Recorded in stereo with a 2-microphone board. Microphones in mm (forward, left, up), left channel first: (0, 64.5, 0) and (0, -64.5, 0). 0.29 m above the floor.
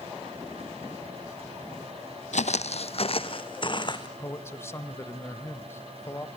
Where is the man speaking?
20° left (ahead or behind), 1.2 m.